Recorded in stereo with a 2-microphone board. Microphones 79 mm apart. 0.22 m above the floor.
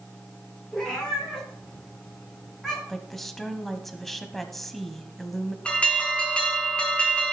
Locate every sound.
0.7 s a cat meowing: 5° left (ahead or behind), 7 m; by 2.8 s centre (ahead or behind), 8 m
2.9 s a woman speaking: 5° left (ahead or behind), 1.2 m
5.7 s an alarm: 15° left (ahead or behind), 2.5 m